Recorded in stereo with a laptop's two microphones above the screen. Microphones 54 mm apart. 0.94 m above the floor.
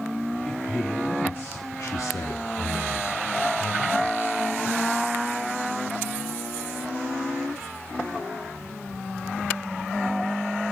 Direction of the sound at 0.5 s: 10° left (ahead or behind).